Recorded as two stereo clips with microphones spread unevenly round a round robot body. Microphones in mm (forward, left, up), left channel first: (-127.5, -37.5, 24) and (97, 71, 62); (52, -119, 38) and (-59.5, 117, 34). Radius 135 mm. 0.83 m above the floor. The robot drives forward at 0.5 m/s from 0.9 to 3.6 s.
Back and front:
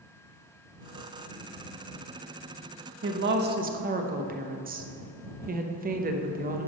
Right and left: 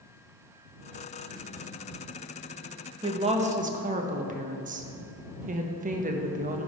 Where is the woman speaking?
50° left, 1.0 m; by 6.7 s 75° left, 0.9 m.